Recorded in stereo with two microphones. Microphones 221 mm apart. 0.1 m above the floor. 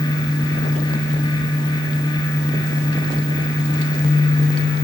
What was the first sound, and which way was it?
Only background noise.